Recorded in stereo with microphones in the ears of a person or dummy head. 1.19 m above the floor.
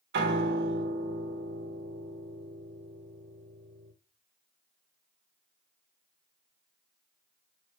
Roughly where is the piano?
Right.